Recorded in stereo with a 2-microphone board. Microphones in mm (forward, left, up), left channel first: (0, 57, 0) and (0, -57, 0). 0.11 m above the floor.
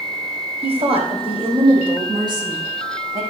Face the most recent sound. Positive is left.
turn(degrees=-30)  # may be behind; listen again after turning